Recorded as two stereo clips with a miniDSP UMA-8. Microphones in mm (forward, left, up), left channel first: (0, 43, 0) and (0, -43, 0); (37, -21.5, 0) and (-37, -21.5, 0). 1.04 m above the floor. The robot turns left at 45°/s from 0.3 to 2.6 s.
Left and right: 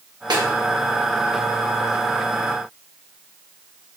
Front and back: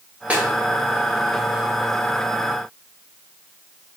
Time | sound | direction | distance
0.3 | a snare drum | 115° right | 0.9 m